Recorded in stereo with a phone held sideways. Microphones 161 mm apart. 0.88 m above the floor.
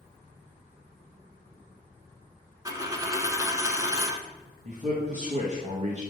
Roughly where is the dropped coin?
Centre.